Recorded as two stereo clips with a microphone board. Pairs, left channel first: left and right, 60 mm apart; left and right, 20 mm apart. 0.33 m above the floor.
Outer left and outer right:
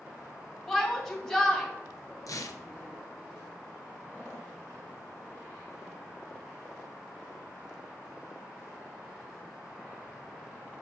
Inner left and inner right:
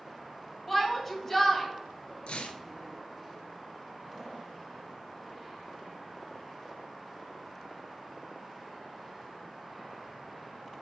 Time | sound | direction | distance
0.7 | a shout | 10° left (ahead or behind) | 2.5 m
2.3 | tearing paper | 80° left | 0.7 m